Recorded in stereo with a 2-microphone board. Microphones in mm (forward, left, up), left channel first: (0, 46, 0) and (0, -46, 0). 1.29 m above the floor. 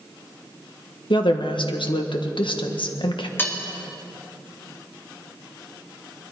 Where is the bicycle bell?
I don't hear a bicycle bell.